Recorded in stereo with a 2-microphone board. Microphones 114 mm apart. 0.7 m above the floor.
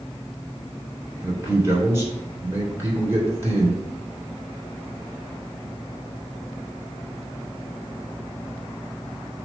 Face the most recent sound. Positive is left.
turn(degrees=-25)  # may be behind; listen again after turning